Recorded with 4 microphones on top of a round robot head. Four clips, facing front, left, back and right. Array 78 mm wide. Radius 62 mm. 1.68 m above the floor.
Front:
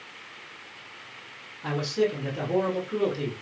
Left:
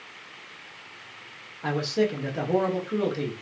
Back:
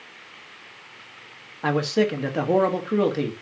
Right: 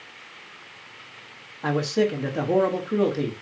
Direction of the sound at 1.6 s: 170° right.